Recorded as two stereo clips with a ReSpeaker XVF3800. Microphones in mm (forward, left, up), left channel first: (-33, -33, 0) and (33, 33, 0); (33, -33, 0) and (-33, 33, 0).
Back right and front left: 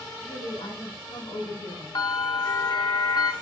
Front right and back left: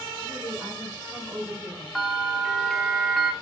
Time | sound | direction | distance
0.2 | a woman speaking | 135° right | 4 m
1.9 | a bell | 135° right | 0.7 m